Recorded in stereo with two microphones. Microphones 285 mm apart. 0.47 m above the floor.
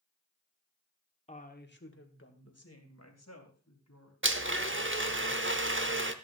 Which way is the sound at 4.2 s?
45° right (ahead or behind).